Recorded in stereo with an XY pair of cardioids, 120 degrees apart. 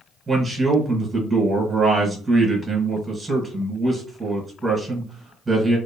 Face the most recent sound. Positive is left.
turn(degrees=-20)